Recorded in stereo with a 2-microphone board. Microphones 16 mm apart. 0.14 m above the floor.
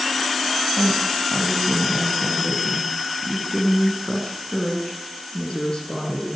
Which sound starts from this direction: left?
A woman speaking, at 0.8 s.